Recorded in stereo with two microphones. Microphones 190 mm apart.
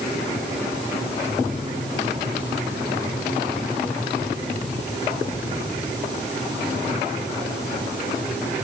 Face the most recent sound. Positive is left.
No sound to turn to.